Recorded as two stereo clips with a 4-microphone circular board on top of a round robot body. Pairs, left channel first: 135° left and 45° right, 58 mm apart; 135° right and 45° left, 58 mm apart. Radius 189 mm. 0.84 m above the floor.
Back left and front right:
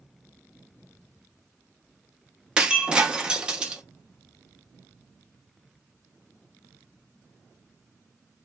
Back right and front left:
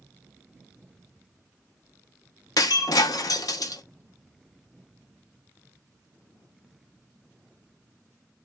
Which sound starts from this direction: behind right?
Breaking glass, at 2.6 s.